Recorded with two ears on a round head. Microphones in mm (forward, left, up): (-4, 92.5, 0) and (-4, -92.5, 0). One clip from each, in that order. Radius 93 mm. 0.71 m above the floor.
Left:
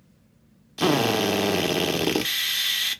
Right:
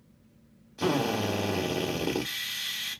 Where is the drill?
85° left, 0.8 m.